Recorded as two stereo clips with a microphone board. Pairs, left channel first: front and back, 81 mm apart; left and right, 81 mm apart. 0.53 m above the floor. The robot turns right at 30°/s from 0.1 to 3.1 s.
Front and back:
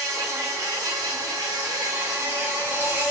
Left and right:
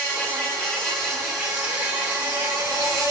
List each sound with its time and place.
0.0 s an insect: 150° left, 1.2 m; by 3.1 s 120° right, 1.2 m